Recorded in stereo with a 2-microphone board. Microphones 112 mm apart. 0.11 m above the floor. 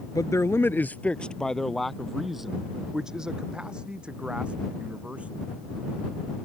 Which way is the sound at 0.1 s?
30° left (ahead or behind).